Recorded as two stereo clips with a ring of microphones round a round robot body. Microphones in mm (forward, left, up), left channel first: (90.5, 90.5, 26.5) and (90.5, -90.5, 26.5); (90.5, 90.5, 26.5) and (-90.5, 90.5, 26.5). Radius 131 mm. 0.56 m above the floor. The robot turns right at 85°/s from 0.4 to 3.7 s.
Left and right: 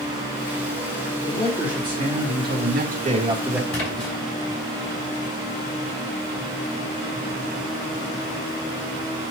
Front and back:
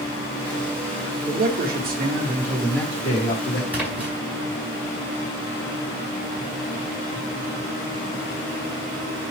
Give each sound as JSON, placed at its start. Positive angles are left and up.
{"t": 1.3, "sound": "a man speaking", "azimuth_deg": 155, "distance_m": 1.8}
{"t": 3.7, "sound": "a splash", "azimuth_deg": 100, "distance_m": 5.0}